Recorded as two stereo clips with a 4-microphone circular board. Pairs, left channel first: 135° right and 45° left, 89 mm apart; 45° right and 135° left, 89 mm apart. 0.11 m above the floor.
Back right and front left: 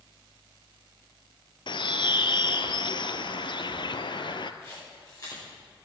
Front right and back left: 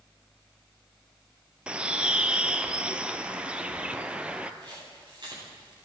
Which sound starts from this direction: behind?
A camera shutter, at 4.6 s.